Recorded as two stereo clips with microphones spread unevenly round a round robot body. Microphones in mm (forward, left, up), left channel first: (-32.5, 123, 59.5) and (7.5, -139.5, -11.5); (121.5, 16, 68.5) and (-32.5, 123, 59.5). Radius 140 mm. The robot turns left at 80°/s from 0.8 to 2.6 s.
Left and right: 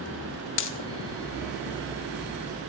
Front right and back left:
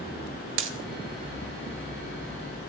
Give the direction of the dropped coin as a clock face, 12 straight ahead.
7 o'clock.